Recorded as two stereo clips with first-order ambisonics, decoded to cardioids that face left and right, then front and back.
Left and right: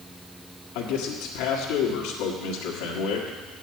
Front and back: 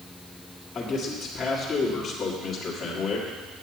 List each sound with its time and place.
0.8 s a man speaking: 70° left, 1.6 m